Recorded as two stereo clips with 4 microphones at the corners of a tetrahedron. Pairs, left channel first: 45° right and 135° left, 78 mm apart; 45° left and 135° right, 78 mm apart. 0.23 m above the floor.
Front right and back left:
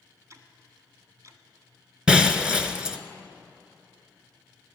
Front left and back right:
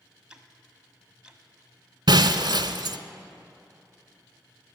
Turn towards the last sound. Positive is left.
turn(degrees=-145)